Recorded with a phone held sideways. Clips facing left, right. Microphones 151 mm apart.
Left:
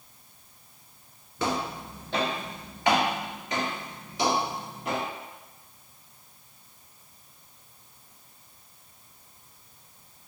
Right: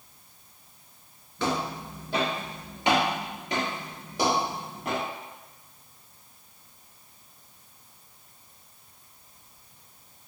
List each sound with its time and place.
1.4 s footsteps: 5° left (ahead or behind), 1.6 m; by 5.0 s 50° right (ahead or behind), 2.5 m